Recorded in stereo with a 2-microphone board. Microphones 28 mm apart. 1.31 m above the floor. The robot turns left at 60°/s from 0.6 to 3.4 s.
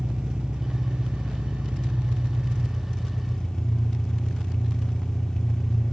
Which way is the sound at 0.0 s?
30° right.